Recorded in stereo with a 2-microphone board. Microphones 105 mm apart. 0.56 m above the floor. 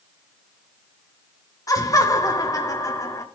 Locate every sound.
1.7 s laughter: 35° left (ahead or behind), 1.2 m